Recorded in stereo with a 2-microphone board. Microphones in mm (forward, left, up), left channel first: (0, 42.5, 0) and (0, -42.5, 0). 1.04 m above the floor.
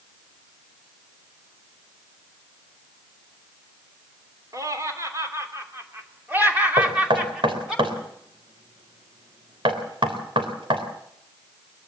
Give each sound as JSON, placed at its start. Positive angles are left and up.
{"t": 4.5, "sound": "laughter", "side_deg": -45, "distance_m": 3.5}
{"t": 6.8, "sound": "knocking", "side_deg": -85, "distance_m": 3.0}